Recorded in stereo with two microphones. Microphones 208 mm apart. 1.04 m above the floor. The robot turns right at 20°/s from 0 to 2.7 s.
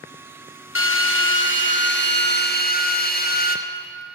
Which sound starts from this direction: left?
A drill, at 0.8 s.